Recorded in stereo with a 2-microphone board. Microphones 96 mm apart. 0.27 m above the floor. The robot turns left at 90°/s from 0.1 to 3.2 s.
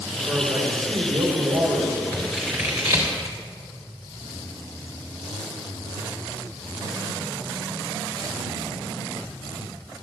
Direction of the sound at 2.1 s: 20° left (ahead or behind).